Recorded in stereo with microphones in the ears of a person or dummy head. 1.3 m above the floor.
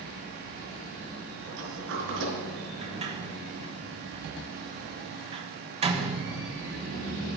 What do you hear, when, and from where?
1.4 s a sliding door: 75° right (ahead or behind), 5 m
2.8 s a sliding door: 25° right (ahead or behind), 1.0 m